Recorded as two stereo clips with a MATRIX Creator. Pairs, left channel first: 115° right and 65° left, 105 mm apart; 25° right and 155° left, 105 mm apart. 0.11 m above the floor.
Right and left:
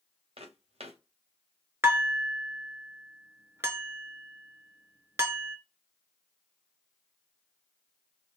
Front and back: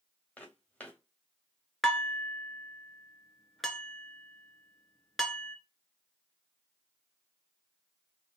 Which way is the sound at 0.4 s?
55° left.